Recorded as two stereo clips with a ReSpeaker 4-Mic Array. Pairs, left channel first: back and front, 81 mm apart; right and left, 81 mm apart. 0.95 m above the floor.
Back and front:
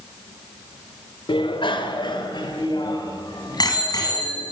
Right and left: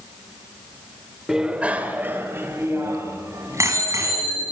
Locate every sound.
1.3 s a bicycle bell: 175° left, 2 m; by 4.5 s 140° left, 6.5 m